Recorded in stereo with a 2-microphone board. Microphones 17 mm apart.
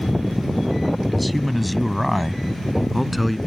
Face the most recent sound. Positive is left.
turn(degrees=0)  # may be behind; listen again after turning